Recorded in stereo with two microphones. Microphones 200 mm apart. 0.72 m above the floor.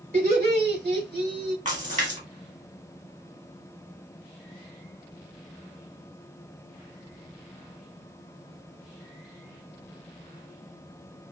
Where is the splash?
40° right (ahead or behind), 1.7 m.